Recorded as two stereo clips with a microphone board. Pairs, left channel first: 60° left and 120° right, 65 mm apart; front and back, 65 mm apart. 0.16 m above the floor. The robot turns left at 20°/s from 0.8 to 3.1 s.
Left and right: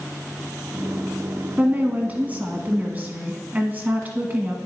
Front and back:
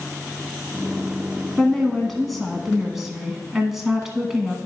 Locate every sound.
1.6 s a woman speaking: 70° right, 1.2 m; by 4.6 s 105° right, 1.2 m